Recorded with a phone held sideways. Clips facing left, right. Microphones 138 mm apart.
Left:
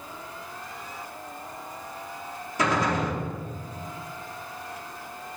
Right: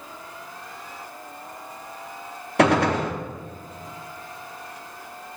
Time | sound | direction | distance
2.6 | a gunshot | 70° right (ahead or behind) | 1.2 m